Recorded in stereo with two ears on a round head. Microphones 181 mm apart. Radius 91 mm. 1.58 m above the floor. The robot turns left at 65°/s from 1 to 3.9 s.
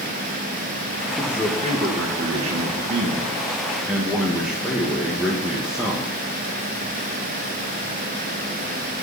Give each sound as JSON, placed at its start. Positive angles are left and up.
{"t": 1.2, "sound": "a man speaking", "azimuth_deg": 0, "distance_m": 1.6}